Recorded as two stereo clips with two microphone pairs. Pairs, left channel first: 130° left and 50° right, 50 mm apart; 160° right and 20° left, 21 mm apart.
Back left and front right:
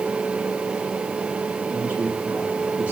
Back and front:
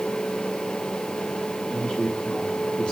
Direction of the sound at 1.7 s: 120° right.